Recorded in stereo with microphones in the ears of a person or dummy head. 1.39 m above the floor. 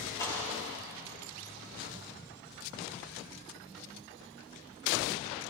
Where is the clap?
15° left (ahead or behind), 5.5 m.